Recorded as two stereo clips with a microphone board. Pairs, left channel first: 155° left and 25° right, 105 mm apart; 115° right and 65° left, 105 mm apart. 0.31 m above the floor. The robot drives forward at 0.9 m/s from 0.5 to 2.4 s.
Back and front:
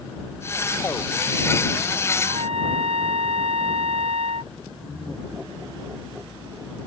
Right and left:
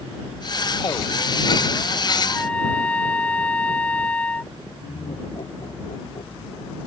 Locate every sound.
2.2 s a trumpet: 35° right
4.8 s laughter: 100° right